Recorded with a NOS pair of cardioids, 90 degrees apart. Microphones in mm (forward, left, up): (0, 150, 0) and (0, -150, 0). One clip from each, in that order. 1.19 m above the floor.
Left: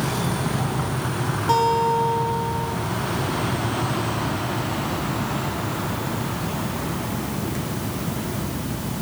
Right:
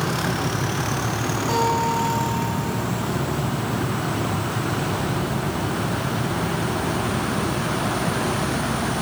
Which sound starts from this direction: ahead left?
A guitar, at 1.5 s.